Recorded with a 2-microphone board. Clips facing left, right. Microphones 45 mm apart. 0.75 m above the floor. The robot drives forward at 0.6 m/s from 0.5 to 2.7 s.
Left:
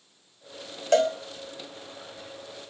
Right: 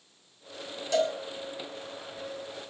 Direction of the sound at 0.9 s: 55° left (ahead or behind).